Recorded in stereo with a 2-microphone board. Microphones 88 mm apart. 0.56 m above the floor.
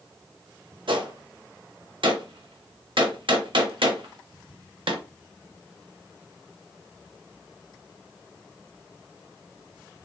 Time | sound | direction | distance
0.9 | a gunshot | 70° right (ahead or behind) | 0.5 m